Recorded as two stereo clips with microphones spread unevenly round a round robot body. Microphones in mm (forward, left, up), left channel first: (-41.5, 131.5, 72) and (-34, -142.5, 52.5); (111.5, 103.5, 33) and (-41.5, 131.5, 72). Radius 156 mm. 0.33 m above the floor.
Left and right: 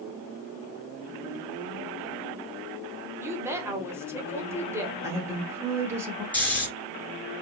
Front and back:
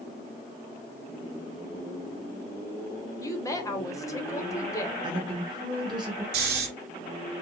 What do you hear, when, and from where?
3.2 s a woman speaking: 20° right, 1.3 m
5.0 s a woman speaking: 140° right, 1.1 m
6.3 s snoring: 175° left, 1.5 m